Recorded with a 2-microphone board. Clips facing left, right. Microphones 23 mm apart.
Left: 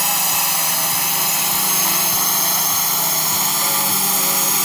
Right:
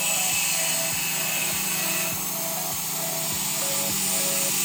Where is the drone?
65° left (ahead or behind).